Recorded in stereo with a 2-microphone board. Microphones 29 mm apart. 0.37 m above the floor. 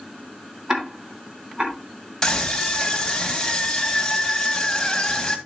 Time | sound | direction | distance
0.7 | ticking | 30° right (ahead or behind) | 3 m
2.2 | a scream | 15° left (ahead or behind) | 2.5 m